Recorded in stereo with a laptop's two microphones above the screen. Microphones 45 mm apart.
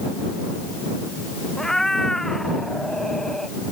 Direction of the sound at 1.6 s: 10° left (ahead or behind).